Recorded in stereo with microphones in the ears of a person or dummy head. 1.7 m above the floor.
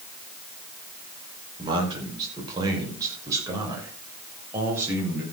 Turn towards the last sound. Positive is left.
turn(degrees=-15)  # may be behind; listen again after turning